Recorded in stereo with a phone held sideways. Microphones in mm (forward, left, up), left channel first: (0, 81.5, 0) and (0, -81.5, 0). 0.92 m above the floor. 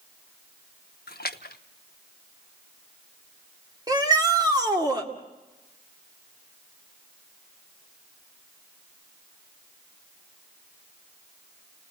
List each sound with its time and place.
1.1 s a splash: 75° left (ahead or behind), 0.9 m
3.9 s a shout: 25° right (ahead or behind), 2 m